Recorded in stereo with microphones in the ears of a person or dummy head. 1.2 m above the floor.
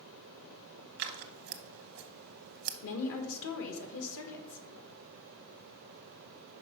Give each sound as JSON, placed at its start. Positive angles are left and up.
{"t": 1.0, "sound": "scissors", "side_deg": -50, "distance_m": 0.7}
{"t": 2.8, "sound": "a woman speaking", "side_deg": 65, "distance_m": 1.5}